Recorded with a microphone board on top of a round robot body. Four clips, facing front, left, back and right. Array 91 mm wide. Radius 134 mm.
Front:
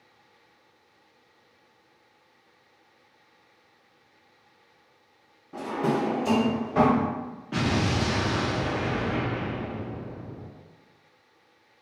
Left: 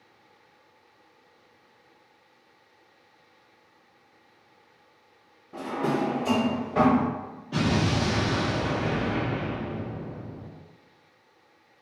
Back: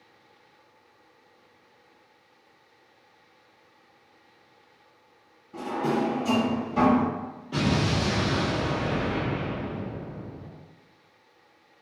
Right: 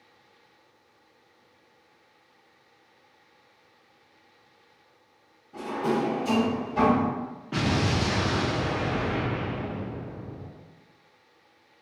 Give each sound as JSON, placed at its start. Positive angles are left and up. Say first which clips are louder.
{"t": 5.5, "sound": "a drawer", "louder": "even, even", "azimuth_deg": 40, "distance_m": 0.8}
{"t": 7.5, "sound": "an explosion", "louder": "left 1 dB, even", "azimuth_deg": -40, "distance_m": 1.2}